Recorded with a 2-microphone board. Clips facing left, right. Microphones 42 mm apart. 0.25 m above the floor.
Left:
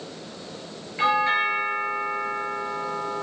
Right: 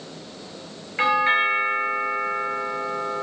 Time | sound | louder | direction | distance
1.0 | a doorbell | right 2 dB | 30° right (ahead or behind) | 5.5 m